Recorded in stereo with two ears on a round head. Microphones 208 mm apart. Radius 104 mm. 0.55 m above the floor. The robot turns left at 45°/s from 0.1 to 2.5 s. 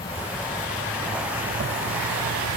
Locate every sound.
0.0 s an insect: 25° left; by 2.6 s 85° right